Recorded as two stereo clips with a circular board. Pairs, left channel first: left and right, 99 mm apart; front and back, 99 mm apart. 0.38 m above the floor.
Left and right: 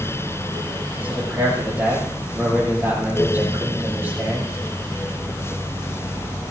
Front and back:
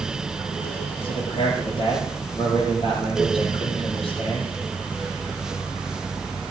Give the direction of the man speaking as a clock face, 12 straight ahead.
1 o'clock.